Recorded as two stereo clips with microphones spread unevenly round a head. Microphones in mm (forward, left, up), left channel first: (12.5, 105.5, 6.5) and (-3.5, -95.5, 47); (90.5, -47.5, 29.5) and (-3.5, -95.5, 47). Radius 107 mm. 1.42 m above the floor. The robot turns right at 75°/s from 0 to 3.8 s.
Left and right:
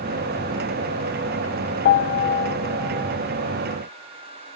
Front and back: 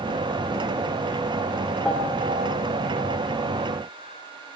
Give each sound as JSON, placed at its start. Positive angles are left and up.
{"t": 1.9, "sound": "a piano", "azimuth_deg": 105, "distance_m": 0.7}